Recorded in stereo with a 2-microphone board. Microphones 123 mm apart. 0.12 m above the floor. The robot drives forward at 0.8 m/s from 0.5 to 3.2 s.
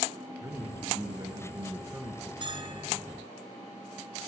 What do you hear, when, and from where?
0.4 s a man speaking: 25° right (ahead or behind), 1.6 m; by 2.3 s 20° right (ahead or behind), 1.8 m
2.4 s a bell: 40° right (ahead or behind), 1.2 m